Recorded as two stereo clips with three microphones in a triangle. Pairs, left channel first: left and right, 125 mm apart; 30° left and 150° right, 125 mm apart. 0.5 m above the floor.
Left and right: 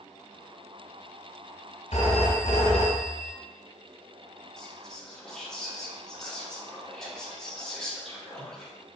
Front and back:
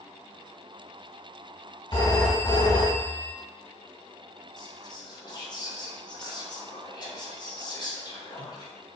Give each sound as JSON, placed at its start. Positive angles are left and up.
{"t": 1.9, "sound": "a phone ringing", "azimuth_deg": 80, "distance_m": 1.7}
{"t": 4.6, "sound": "whispering", "azimuth_deg": 10, "distance_m": 0.8}